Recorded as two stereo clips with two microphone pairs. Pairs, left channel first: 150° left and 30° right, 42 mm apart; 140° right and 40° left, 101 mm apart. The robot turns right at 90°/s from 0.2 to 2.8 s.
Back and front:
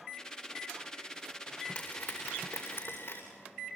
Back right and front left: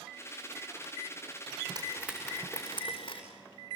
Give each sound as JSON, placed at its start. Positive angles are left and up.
{"t": 1.8, "sound": "frying", "azimuth_deg": 90, "distance_m": 8.0}